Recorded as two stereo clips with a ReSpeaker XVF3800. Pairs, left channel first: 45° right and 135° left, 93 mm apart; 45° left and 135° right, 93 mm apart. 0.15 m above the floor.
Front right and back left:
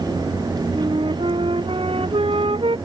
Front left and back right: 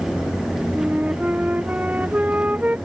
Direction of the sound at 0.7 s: 150° left.